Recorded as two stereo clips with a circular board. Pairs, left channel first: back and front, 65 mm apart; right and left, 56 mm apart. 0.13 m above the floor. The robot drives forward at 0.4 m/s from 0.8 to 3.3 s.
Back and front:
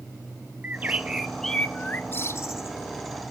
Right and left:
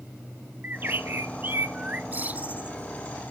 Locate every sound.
0.6 s a bird: 55° left, 0.5 m; by 3.3 s 160° left, 0.9 m